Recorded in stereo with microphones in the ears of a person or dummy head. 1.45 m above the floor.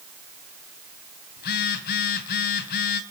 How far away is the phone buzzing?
About 3 m.